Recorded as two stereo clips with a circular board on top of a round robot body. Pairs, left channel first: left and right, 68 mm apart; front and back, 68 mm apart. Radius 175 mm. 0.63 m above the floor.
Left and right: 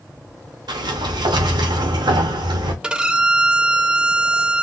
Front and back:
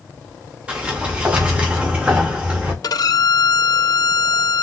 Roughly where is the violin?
Ahead.